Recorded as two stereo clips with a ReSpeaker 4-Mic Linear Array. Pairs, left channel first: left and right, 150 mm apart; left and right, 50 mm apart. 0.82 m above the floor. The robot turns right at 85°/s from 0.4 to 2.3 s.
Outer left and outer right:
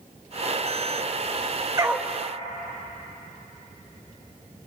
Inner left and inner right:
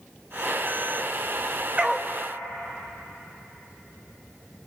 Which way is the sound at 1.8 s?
25° right (ahead or behind).